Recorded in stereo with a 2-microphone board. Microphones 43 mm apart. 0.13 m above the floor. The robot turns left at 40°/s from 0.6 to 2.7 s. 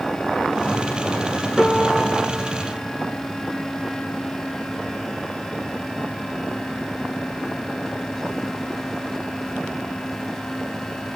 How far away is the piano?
About 1.7 m.